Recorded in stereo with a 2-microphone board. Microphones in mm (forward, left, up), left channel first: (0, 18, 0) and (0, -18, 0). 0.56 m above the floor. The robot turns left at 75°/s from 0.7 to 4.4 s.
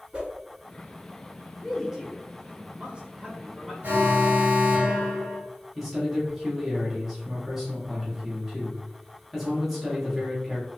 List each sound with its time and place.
0.1 s a whoosh: 30° right (ahead or behind), 1.0 m
1.6 s a man speaking: straight ahead, 1.1 m; by 3.7 s 160° right, 1.1 m
3.8 s an alarm: 70° right, 1.3 m; by 5.4 s 110° right, 1.3 m
5.8 s a man speaking: 5° right (ahead or behind), 1.0 m